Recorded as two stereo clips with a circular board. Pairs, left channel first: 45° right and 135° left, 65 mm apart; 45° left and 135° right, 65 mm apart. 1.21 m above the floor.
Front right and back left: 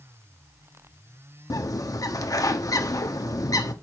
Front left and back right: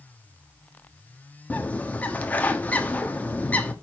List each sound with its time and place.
1.5 s a bird: 20° right, 1.4 m